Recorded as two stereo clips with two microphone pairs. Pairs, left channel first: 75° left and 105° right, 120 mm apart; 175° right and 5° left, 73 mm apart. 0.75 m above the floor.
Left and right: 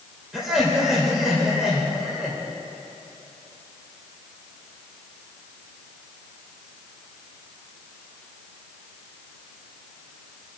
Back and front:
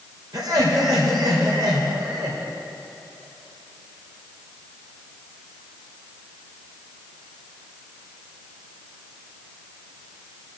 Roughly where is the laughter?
Ahead.